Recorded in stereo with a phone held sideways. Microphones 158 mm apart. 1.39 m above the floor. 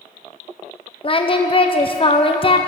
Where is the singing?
35° left (ahead or behind), 0.6 m.